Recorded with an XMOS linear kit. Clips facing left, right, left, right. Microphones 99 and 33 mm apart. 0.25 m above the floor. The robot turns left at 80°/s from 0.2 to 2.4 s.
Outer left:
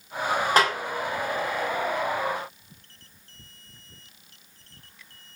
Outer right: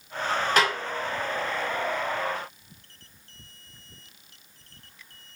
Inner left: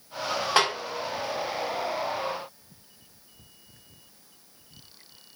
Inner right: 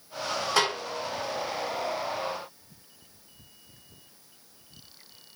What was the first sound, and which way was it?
A snare drum, 40° left (ahead or behind).